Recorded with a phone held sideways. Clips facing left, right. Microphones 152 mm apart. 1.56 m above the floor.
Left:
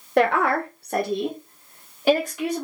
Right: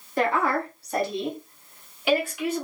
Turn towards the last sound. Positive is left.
turn(degrees=35)  # may be behind; listen again after turning